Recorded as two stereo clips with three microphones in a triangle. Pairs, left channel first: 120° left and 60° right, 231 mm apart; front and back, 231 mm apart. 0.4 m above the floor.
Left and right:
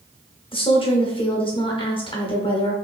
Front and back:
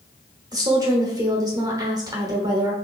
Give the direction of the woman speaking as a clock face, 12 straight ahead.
7 o'clock.